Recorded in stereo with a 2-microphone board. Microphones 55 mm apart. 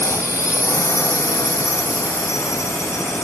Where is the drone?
70° left (ahead or behind).